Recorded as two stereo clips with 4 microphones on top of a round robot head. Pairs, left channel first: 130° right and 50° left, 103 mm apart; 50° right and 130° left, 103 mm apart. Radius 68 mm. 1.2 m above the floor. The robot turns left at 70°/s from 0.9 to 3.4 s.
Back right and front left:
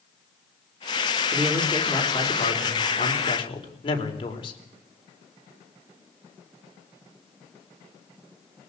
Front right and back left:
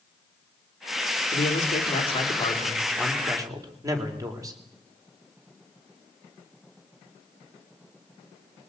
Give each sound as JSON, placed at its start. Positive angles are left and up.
{"t": 1.3, "sound": "a man speaking", "azimuth_deg": -25, "distance_m": 4.0}